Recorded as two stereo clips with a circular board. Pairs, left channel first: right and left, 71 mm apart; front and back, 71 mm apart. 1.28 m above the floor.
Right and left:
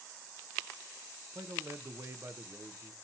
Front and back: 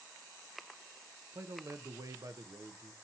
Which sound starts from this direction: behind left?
A man speaking, at 1.3 s.